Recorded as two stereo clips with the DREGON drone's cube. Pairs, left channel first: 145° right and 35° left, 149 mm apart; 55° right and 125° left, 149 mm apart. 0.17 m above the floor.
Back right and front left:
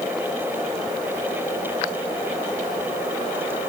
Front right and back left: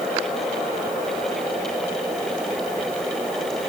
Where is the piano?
No piano in this recording.